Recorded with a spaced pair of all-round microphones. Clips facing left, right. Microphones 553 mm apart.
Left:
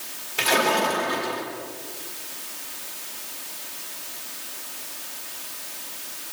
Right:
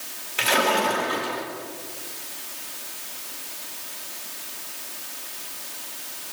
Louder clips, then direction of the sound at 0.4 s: Even; 60° left (ahead or behind).